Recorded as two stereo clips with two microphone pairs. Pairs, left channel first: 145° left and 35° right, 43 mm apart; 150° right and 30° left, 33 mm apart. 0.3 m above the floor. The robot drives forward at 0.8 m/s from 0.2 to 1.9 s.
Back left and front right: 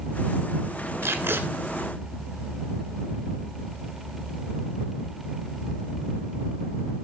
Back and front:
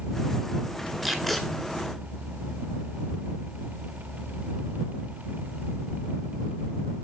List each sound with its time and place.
1.0 s tape being pulled: 50° right, 1.2 m; by 1.4 s 65° right, 1.1 m